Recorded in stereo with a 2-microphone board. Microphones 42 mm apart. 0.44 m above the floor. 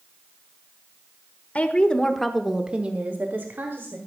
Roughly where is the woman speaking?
Left.